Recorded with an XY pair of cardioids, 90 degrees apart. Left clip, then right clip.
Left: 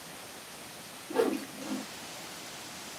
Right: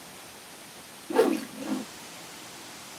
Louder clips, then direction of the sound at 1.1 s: Right 6 dB; 60° right.